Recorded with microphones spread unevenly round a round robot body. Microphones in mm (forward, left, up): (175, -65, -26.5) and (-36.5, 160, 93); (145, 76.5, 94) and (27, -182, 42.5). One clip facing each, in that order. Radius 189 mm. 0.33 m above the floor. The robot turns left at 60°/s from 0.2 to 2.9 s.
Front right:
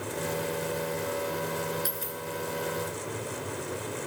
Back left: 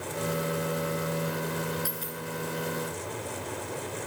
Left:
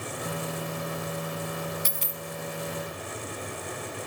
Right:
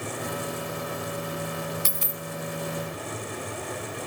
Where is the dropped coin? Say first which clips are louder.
Front right 1 dB, right 2 dB; 110° right, 0.9 m; by 2.2 s 135° right, 0.9 m.